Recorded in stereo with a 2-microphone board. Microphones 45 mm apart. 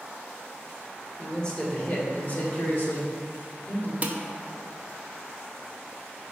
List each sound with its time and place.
1.2 s a man speaking: 15° left (ahead or behind), 1.8 m; by 3.9 s 50° left (ahead or behind), 1.8 m
4.0 s dishes clattering: 40° right (ahead or behind), 0.5 m